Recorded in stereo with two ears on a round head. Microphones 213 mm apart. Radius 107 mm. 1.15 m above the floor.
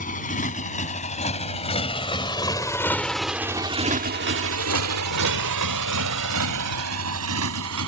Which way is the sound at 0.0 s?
35° left (ahead or behind).